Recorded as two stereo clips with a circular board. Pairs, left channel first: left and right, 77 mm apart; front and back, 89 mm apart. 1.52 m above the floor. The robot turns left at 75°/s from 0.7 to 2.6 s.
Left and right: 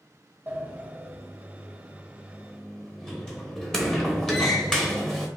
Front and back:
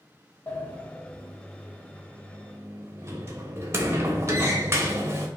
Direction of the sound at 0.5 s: 50° right.